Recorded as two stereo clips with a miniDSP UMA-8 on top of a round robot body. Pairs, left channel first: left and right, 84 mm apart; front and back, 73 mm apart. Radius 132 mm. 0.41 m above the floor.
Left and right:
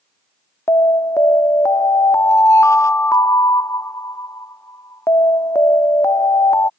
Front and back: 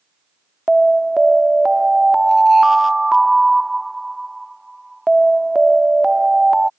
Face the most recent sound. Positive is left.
turn(degrees=95)